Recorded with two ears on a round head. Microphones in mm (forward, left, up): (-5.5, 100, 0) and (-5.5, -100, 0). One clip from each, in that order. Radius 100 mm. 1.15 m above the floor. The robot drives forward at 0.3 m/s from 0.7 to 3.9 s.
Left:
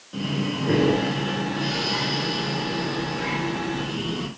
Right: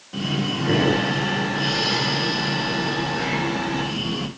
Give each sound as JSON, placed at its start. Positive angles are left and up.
{"t": 0.1, "sound": "breathing", "side_deg": -15, "distance_m": 1.5}